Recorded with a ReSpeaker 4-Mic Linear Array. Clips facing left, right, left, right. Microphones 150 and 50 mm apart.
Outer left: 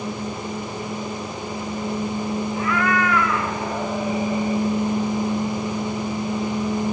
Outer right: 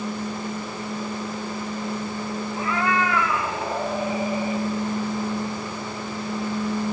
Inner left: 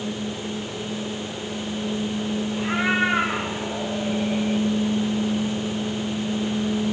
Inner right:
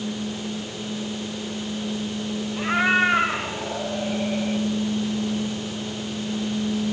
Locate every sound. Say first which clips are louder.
2.6 s a cat meowing: outer left 1 dB, inner right 3 dB; 30° right (ahead or behind), 4.5 m; by 4.6 s 10° right (ahead or behind), 5.5 m